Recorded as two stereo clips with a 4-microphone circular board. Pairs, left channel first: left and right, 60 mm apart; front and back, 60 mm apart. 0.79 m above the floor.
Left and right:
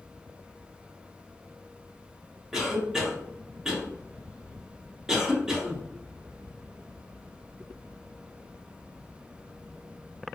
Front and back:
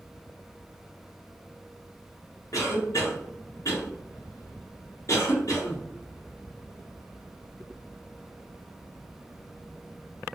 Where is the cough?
10° right, 1.2 m.